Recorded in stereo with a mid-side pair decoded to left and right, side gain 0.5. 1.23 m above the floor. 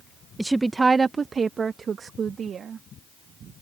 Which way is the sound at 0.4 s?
5° right.